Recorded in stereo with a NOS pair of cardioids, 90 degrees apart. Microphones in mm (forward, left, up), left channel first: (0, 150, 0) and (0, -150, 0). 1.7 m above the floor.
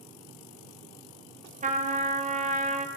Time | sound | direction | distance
1.6 | a trumpet | 25° right | 1.3 m